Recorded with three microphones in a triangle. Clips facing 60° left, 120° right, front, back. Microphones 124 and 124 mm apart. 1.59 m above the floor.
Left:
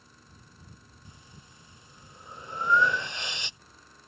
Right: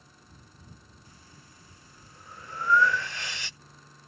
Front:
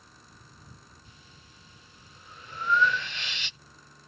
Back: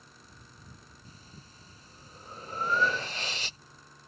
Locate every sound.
1.1 s breathing: 130° left